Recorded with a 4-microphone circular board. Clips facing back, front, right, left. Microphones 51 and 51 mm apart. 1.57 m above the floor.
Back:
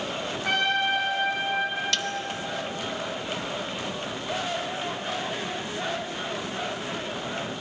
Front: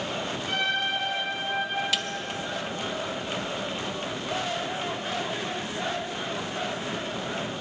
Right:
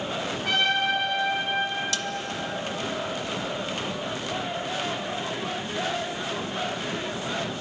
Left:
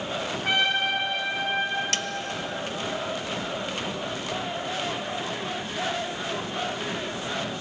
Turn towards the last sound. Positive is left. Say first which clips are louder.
# even, left 1 dB
turn(degrees=85)